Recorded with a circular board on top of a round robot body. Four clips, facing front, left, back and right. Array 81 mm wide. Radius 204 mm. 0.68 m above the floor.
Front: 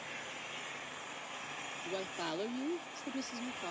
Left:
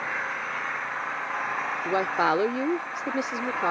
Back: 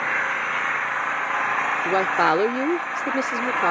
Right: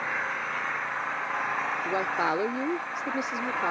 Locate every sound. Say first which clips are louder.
0.0 s an engine running: even, back 22 dB; straight behind
1.9 s a woman speaking: left 5 dB, back 19 dB; 165° left